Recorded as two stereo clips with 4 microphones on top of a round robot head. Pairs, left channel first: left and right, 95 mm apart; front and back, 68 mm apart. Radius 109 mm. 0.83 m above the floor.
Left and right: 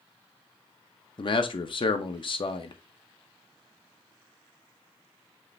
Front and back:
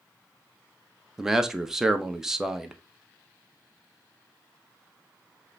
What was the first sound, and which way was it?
A man speaking, 100° left.